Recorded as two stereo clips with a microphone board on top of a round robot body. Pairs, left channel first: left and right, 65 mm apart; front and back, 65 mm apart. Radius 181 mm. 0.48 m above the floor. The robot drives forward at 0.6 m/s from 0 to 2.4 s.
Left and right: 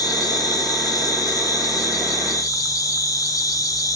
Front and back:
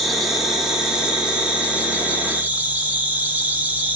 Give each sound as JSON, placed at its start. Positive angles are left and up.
{"t": 0.0, "sound": "an insect", "azimuth_deg": 90, "distance_m": 3.5}